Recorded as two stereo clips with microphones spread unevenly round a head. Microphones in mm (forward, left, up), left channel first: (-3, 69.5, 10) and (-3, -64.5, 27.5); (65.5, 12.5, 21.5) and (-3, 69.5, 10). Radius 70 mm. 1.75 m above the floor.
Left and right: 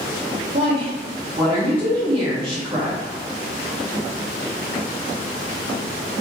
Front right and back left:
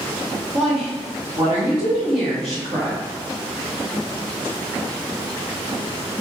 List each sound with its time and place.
0.5 s a woman speaking: 155° right, 1.3 m